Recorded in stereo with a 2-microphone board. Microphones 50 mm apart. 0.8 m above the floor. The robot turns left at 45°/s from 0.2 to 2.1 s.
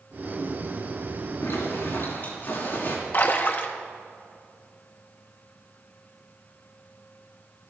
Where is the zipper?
80° left, 4 m; by 3.0 s 50° left, 4 m.